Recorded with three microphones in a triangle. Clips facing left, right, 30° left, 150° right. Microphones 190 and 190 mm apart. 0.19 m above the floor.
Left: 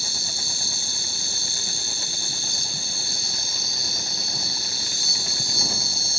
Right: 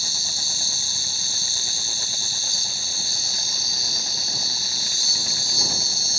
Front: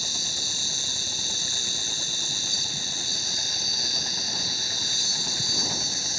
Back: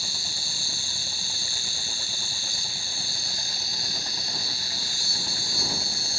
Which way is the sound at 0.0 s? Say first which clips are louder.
Left 3 dB, front 3 dB; 70° left.